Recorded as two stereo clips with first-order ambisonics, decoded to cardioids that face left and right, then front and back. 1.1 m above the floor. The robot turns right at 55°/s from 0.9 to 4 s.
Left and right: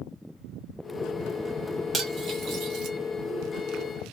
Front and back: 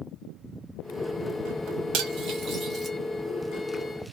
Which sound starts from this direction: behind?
Cutlery clinking, at 1.9 s.